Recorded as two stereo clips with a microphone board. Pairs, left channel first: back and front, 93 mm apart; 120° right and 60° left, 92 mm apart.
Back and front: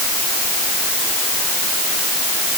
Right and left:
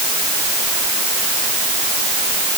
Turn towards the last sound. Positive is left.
No sound to turn to.